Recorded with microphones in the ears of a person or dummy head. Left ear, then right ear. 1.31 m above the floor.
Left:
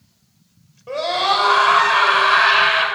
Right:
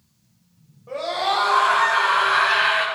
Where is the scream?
70° left (ahead or behind), 6.5 m; by 2.9 s 55° left (ahead or behind), 7 m.